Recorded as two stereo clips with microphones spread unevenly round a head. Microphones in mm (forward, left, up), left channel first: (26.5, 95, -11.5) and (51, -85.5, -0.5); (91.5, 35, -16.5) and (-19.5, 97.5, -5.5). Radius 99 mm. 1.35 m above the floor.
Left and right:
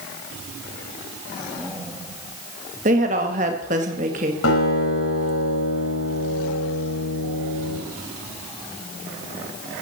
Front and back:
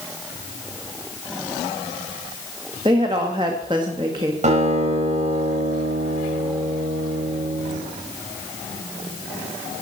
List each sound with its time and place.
2.9 s a woman speaking: 140° right, 2 m
4.4 s a guitar: 125° left, 5 m